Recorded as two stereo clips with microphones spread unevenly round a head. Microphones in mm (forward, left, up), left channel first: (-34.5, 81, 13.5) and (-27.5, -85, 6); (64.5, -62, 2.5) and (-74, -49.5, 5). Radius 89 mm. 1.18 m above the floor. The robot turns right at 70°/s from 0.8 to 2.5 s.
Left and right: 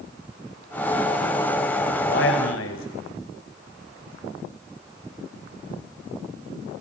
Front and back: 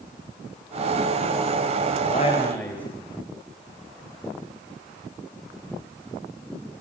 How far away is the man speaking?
About 5 m.